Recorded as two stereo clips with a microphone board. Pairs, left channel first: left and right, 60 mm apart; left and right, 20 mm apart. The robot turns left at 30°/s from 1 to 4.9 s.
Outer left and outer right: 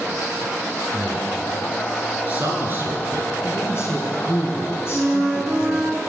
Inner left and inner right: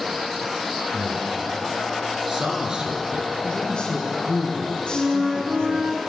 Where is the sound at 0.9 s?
10° left (ahead or behind), 3 m; by 3.3 s 55° right (ahead or behind), 3 m.